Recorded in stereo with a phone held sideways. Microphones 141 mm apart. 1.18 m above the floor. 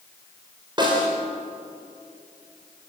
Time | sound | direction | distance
0.8 | a snare drum | 35° right (ahead or behind) | 5 m